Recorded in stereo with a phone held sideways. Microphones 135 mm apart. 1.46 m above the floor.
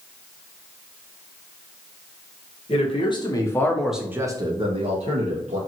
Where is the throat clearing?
No throat clearing in this recording.